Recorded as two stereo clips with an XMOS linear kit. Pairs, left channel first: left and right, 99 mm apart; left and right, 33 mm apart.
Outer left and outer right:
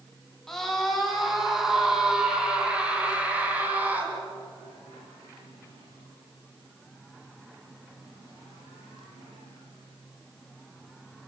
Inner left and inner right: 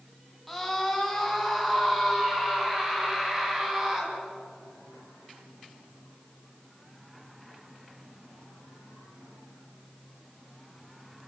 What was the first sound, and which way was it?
A scream, 5° left (ahead or behind).